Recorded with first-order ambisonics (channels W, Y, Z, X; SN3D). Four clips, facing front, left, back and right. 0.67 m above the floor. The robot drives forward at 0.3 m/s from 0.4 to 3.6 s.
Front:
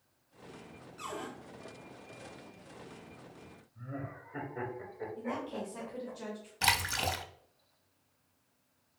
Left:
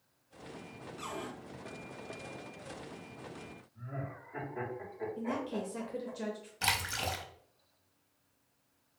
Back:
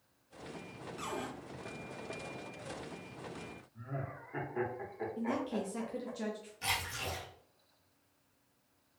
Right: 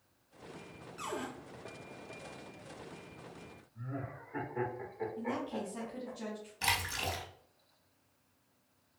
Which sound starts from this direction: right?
A cupboard door, at 1.0 s.